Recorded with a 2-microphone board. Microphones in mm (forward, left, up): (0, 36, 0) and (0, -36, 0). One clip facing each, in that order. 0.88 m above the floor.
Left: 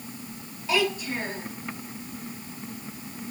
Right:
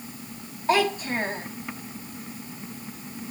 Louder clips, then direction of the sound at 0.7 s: Right 3 dB; 45° right (ahead or behind).